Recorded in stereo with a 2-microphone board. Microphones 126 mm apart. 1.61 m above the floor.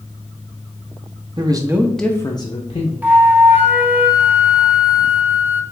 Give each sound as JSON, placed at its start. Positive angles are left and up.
{"t": 1.4, "sound": "a man speaking", "side_deg": -40, "distance_m": 0.7}
{"t": 3.0, "sound": "a flute", "side_deg": -15, "distance_m": 0.5}